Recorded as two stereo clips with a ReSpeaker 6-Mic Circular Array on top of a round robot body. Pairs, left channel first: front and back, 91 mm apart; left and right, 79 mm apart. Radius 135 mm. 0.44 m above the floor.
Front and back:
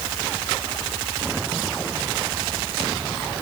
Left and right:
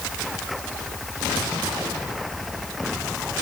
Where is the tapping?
No tapping in this recording.